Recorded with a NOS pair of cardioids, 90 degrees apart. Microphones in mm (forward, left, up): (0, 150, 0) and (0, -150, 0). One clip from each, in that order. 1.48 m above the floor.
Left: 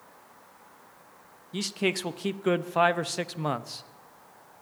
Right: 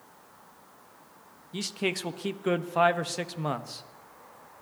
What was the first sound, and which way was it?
A man speaking, 10° left.